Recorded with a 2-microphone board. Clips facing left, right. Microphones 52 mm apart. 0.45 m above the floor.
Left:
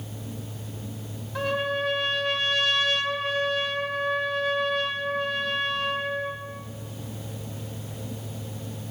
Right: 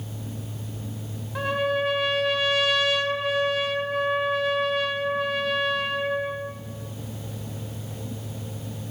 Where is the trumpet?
5° right (ahead or behind), 3.5 m.